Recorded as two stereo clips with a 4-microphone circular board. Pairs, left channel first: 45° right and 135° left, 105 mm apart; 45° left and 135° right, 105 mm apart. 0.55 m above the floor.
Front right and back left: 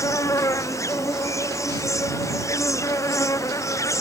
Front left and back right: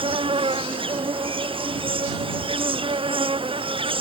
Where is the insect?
105° right.